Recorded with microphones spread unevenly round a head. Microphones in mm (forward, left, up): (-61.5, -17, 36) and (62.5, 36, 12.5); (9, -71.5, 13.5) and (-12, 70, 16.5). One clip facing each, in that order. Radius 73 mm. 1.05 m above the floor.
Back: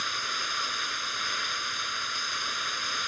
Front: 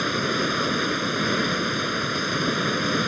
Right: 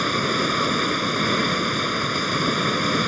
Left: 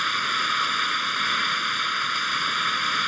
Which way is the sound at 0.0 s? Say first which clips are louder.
Front 13 dB, right 8 dB; 25° right.